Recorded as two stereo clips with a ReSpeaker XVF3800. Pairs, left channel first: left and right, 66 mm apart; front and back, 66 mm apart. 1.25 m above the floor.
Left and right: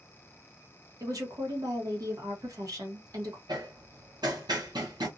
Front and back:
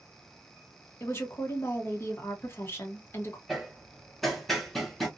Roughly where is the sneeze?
No sneeze in this recording.